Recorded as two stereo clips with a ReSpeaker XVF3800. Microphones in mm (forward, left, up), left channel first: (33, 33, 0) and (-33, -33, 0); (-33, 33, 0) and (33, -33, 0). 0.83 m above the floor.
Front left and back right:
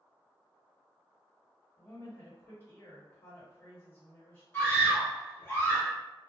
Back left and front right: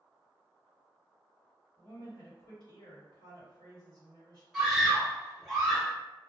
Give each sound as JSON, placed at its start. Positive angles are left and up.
{"t": 1.8, "sound": "a woman speaking", "azimuth_deg": 115, "distance_m": 1.8}
{"t": 4.5, "sound": "a scream", "azimuth_deg": 50, "distance_m": 1.1}